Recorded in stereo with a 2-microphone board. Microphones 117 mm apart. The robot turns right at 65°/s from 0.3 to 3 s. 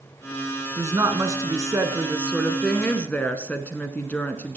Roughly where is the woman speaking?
Right.